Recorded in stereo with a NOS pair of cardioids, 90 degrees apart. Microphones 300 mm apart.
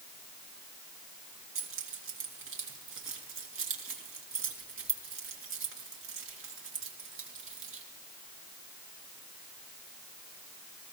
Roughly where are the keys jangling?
Ahead right.